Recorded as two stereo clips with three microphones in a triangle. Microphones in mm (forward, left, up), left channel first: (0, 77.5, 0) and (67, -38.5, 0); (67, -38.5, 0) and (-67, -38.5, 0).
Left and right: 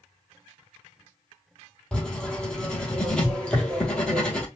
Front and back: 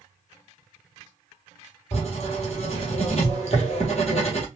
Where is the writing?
35° left, 2.5 m.